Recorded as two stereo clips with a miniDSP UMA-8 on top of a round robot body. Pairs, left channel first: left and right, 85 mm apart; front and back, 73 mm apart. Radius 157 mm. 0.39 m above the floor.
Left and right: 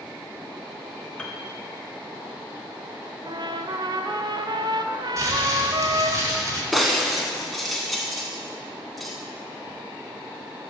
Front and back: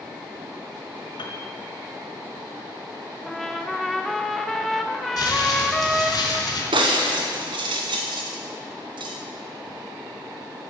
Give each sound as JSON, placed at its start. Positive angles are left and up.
{"t": 1.2, "sound": "a piano", "azimuth_deg": 10, "distance_m": 0.9}
{"t": 3.3, "sound": "a trumpet", "azimuth_deg": -85, "distance_m": 0.8}
{"t": 5.2, "sound": "crumpling", "azimuth_deg": -35, "distance_m": 1.9}
{"t": 6.7, "sound": "breaking glass", "azimuth_deg": 180, "distance_m": 0.6}